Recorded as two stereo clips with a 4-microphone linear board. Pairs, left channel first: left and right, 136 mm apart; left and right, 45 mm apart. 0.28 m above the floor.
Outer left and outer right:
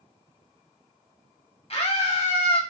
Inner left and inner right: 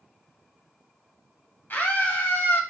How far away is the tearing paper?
I don't hear tearing paper.